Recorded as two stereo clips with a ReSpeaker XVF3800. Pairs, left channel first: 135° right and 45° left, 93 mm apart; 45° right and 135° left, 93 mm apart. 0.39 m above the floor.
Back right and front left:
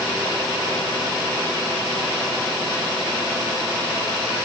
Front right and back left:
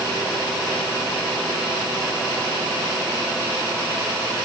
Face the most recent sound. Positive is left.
No sound to turn to.